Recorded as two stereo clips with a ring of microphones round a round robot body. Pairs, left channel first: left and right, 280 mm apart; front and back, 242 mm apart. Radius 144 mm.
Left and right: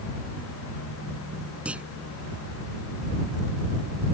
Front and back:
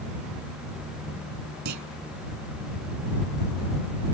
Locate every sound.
1.6 s a clunk: 175° right